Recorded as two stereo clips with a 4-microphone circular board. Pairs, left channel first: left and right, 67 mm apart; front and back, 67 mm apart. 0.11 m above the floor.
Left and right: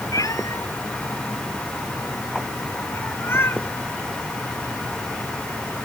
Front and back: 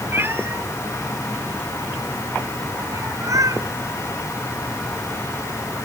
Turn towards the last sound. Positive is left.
turn(degrees=145)